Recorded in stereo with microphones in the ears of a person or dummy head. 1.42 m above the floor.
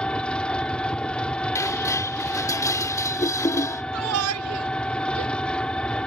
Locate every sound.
0.0 s an engine running: 5° left (ahead or behind)
1.6 s dishes clattering: 20° left (ahead or behind)
3.9 s a shout: 80° right